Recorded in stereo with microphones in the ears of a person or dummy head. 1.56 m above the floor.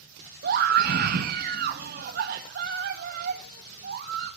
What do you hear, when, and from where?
0.4 s a scream: 50° right (ahead or behind), 1.7 m